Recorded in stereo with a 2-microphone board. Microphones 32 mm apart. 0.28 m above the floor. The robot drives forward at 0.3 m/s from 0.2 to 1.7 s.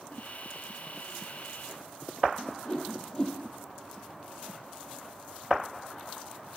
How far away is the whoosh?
About 5 m.